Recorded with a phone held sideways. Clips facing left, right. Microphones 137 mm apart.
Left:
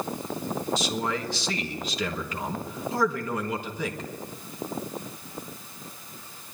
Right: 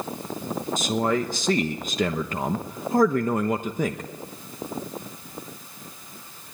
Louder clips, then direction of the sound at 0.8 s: Right 5 dB; 50° right (ahead or behind).